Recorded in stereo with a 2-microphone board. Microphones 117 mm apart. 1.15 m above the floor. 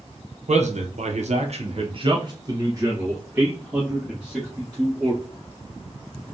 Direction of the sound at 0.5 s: 70° right (ahead or behind).